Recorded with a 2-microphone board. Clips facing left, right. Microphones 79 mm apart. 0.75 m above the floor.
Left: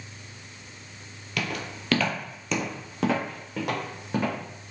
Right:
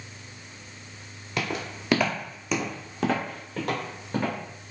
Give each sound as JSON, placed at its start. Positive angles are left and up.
{"t": 1.4, "sound": "footsteps", "side_deg": -30, "distance_m": 0.8}